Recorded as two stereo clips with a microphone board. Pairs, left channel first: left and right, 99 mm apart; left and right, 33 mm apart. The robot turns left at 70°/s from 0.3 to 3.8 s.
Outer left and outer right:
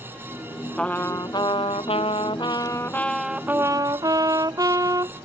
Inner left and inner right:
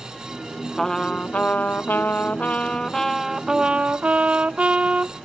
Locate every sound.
0.8 s a trumpet: 170° left; by 5.1 s 40° right